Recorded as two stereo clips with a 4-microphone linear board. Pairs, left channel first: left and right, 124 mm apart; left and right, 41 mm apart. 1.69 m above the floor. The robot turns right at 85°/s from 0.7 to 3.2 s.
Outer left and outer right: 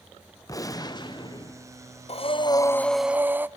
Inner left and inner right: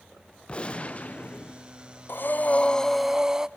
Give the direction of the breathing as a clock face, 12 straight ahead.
9 o'clock.